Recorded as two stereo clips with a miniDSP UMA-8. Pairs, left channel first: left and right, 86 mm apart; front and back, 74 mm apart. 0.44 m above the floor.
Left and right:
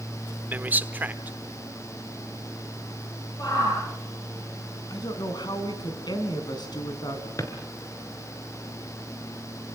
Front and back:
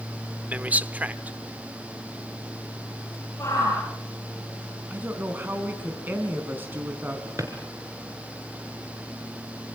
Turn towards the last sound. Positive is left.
turn(degrees=135)